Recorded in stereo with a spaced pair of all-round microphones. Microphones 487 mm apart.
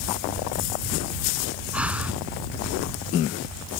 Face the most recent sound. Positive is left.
turn(degrees=0)  # may be behind; listen again after turning